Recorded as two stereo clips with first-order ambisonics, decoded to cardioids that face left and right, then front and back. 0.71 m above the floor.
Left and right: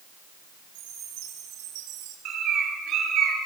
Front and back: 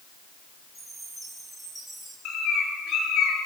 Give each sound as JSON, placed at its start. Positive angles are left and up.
{"t": 0.8, "sound": "a chime", "azimuth_deg": -80, "distance_m": 9.5}
{"t": 2.2, "sound": "a bird", "azimuth_deg": -40, "distance_m": 9.5}